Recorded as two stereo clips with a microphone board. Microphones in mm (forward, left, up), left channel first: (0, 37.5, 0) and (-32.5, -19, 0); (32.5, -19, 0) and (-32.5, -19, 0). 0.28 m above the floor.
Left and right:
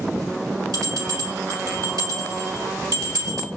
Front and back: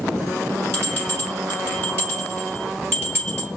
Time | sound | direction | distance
0.7 | a bell | 125° right | 3 m